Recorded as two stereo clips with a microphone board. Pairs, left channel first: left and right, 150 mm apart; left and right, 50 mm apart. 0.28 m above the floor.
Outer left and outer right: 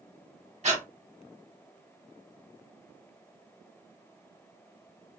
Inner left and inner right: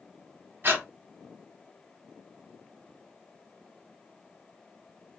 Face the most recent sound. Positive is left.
turn(degrees=-50)  # may be behind; listen again after turning